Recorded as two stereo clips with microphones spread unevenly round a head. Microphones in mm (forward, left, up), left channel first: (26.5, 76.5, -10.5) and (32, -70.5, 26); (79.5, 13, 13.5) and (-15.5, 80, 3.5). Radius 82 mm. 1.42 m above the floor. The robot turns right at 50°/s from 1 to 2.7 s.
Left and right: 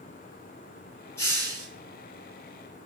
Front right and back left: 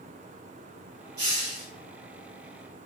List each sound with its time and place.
1.2 s a hiss: 175° left, 1.4 m; by 1.7 s 160° right, 1.4 m